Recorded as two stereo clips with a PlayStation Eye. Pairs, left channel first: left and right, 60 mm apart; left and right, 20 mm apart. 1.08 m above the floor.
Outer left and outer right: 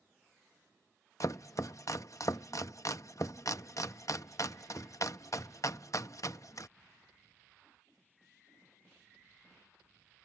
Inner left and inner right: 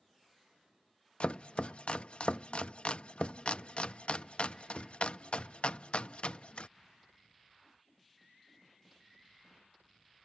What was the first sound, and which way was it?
Chopping, 60° left (ahead or behind).